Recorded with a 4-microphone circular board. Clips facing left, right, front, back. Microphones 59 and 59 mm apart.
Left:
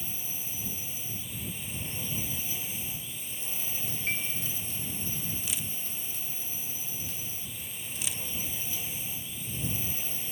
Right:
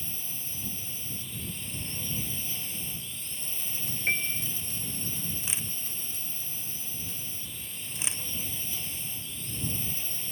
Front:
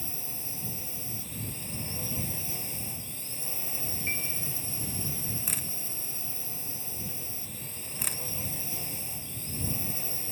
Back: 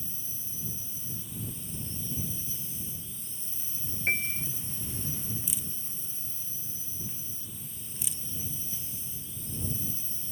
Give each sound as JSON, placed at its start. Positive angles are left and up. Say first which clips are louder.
{"t": 0.0, "sound": "a drone", "louder": "left 1 dB, front 5 dB", "azimuth_deg": 10}
{"t": 4.1, "sound": "a piano", "louder": "right 5 dB, back 7 dB", "azimuth_deg": -140}
{"t": 5.5, "sound": "a camera shutter", "louder": "even, front 4 dB", "azimuth_deg": -30}